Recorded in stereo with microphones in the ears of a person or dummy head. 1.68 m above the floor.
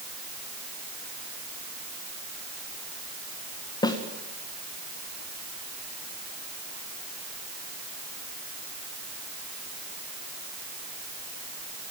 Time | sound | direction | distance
3.8 | a snare drum | 25° left (ahead or behind) | 1.7 m